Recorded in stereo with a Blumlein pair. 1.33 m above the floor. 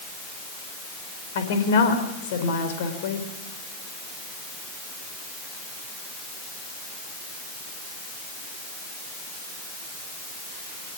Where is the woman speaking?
55° left, 4.5 m.